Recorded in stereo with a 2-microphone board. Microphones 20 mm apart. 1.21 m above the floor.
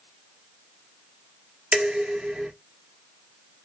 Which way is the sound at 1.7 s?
85° right.